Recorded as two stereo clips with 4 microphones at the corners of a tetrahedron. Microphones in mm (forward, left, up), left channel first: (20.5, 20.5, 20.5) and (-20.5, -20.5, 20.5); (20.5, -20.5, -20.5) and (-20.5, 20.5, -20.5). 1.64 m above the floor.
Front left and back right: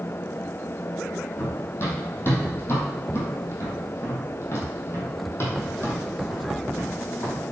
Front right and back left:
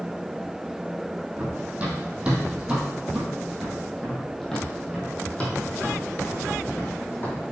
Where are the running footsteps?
80° left, 2.5 m; by 7.4 s 5° right, 3 m.